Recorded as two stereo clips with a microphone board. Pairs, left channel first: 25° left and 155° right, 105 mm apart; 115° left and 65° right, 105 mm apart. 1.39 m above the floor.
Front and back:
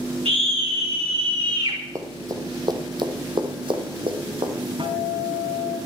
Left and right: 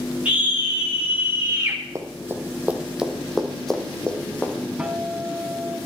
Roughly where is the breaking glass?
I don't hear breaking glass.